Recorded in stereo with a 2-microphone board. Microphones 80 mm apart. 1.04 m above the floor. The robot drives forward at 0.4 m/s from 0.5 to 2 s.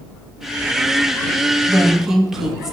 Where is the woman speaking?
5° right (ahead or behind), 1.3 m.